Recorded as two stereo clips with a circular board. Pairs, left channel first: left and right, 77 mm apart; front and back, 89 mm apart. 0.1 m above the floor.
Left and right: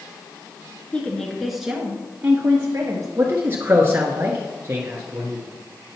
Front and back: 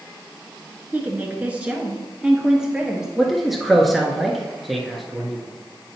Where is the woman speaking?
140° left, 1.4 m; by 3.1 s 100° right, 1.8 m.